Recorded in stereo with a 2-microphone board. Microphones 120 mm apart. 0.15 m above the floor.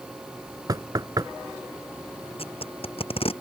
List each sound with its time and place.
0.7 s knocking: 35° right (ahead or behind)
2.4 s tape being pulled: 50° left (ahead or behind)